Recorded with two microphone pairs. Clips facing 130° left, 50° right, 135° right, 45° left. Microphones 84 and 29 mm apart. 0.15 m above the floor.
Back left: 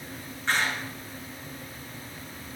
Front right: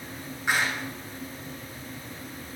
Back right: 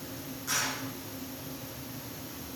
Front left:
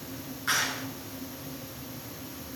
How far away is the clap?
About 1.6 m.